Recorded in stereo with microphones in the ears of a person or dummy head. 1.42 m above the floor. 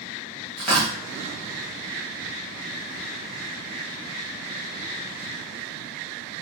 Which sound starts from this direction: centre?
Tearing paper, at 0.6 s.